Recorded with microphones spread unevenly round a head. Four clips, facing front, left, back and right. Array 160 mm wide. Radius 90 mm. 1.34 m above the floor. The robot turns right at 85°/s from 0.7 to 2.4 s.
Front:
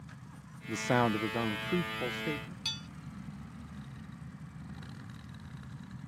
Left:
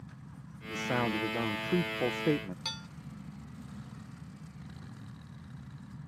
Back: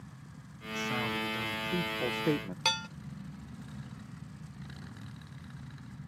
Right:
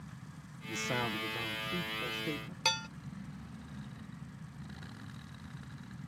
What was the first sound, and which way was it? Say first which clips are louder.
A man speaking: left 5 dB, front 6 dB; 15° right.